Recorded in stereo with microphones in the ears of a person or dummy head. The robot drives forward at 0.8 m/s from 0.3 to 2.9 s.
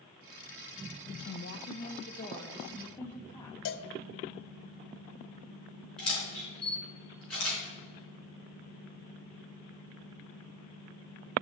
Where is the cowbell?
60° left (ahead or behind), 0.6 m.